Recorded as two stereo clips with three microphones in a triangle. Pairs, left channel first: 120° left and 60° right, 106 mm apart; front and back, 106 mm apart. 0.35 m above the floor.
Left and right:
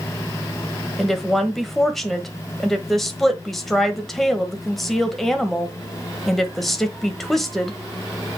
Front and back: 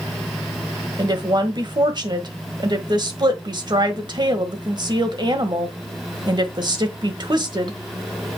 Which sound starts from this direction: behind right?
A woman speaking, at 1.0 s.